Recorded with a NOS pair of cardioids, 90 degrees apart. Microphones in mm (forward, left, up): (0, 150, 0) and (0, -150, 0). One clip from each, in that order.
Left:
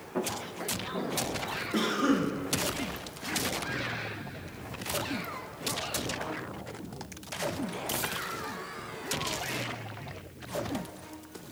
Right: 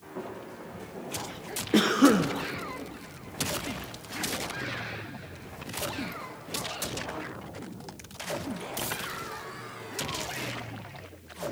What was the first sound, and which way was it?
Footsteps, 55° left.